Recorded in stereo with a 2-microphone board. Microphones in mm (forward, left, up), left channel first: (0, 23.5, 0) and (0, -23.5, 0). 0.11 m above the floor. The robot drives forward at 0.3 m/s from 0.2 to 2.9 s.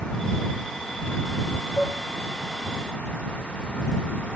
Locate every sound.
1.8 s dishes clattering: 75° left (ahead or behind), 6 m